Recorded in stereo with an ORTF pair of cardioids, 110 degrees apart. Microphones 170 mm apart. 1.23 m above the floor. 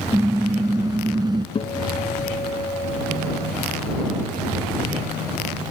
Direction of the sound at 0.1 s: 15° right.